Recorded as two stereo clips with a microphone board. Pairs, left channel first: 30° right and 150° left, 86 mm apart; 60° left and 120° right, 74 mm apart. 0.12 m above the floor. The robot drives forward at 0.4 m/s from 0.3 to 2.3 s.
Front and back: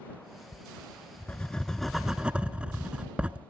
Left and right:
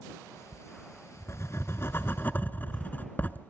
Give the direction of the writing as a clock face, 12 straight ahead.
11 o'clock.